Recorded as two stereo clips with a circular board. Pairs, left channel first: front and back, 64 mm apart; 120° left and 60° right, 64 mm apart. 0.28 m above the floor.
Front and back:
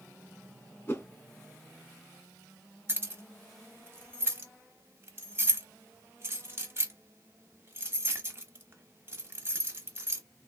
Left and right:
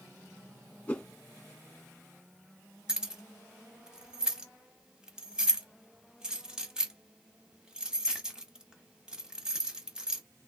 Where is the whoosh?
50° left, 1.3 m.